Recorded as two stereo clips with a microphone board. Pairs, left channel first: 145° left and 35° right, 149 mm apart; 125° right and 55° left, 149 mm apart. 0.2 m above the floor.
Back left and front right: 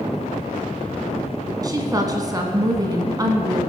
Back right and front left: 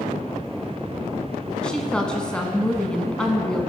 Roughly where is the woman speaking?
Ahead right.